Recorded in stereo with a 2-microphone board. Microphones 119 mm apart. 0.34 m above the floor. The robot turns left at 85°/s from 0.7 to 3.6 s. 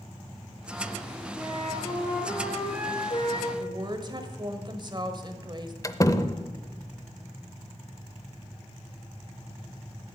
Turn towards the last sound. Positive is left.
turn(degrees=25)  # may be behind; listen again after turning